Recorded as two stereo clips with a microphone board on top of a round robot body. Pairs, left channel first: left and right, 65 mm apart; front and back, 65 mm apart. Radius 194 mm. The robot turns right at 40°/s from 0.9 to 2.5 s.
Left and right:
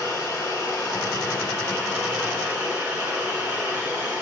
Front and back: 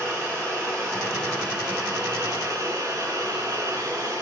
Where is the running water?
130° left, 5 m; by 4.2 s 170° right, 5 m.